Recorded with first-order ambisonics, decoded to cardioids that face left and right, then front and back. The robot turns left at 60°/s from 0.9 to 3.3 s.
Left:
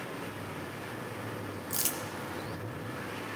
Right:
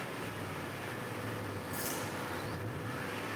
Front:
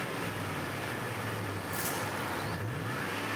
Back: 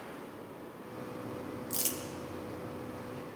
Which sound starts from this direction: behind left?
Crumpling, at 1.7 s.